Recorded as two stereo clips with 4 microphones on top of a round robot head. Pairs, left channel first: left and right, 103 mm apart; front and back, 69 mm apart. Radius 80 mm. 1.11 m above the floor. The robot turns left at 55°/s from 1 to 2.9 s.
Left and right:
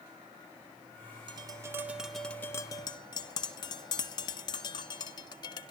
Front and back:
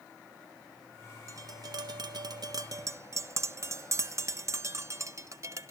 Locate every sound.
1.3 s tapping: 135° right, 1.3 m; by 5.7 s 135° left, 1.3 m